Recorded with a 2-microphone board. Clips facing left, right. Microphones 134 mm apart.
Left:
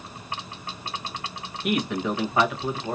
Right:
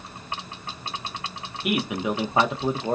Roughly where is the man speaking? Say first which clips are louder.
Even; centre.